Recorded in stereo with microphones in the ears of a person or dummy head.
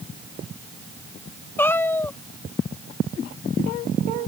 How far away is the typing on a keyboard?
No typing on a keyboard in this recording.